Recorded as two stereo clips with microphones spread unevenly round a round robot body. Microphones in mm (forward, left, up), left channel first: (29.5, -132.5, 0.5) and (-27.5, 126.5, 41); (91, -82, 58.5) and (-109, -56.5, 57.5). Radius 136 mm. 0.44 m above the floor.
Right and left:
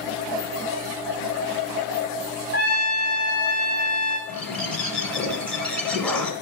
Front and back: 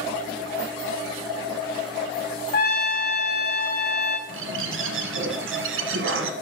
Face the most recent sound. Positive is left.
turn(degrees=-165)